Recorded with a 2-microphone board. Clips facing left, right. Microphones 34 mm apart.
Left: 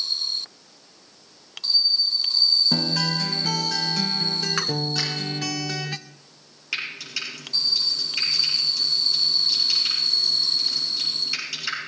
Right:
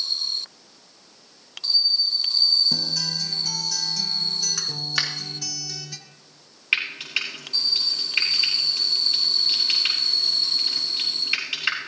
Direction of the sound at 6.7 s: 40° right (ahead or behind).